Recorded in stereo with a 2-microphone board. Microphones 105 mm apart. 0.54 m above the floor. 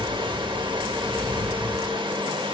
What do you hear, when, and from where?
0.0 s running water: 50° right (ahead or behind), 0.8 m